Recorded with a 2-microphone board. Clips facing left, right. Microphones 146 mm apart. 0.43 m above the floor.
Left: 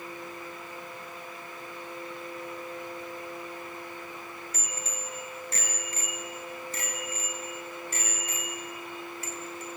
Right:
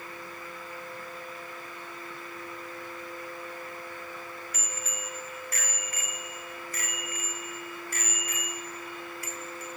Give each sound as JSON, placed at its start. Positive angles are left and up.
{"t": 4.5, "sound": "a bicycle bell", "side_deg": 30, "distance_m": 4.5}